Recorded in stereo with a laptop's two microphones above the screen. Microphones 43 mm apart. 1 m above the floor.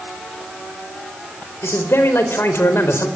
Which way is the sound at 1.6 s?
80° left.